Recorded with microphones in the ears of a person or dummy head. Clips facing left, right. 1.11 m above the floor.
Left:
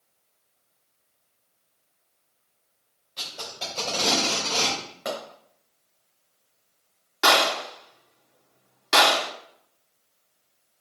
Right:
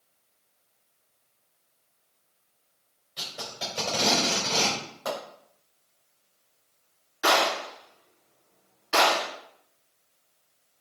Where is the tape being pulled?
10° right (ahead or behind), 4.5 m.